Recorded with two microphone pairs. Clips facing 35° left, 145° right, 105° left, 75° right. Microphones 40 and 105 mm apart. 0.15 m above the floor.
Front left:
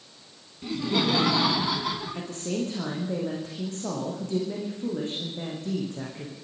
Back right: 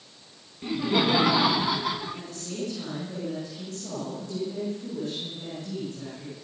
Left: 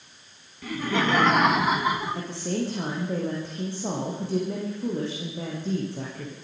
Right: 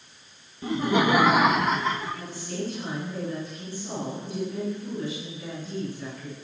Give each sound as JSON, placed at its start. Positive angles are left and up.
{"t": 0.6, "sound": "laughter", "azimuth_deg": -85, "distance_m": 1.1}
{"t": 2.1, "sound": "a woman speaking", "azimuth_deg": 80, "distance_m": 9.0}